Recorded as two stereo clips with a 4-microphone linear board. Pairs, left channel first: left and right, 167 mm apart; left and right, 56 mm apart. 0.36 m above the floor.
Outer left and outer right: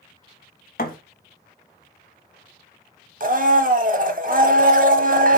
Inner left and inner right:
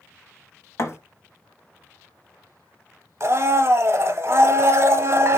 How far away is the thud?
About 0.8 m.